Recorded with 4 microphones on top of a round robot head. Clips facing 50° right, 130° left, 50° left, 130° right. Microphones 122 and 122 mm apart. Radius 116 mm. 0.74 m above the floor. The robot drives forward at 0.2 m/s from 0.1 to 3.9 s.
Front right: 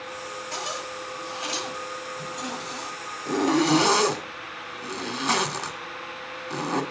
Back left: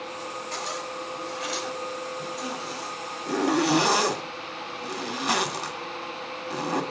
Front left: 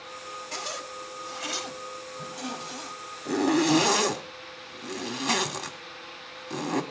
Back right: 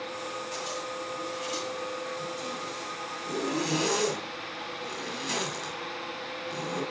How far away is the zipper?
About 2.5 m.